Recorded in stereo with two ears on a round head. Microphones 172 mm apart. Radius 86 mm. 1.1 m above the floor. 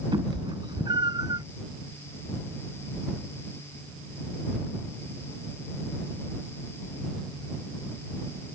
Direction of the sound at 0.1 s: 25° right (ahead or behind).